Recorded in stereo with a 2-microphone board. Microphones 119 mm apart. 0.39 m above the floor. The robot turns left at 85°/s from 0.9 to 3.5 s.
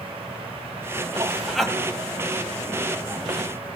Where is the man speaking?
145° right, 3 m; by 1.8 s 165° left, 3 m.